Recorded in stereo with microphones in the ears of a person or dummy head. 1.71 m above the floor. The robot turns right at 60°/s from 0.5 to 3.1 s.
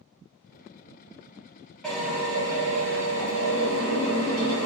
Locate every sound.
1.8 s a drill: 175° left, 1.4 m; by 4.7 s 105° right, 1.4 m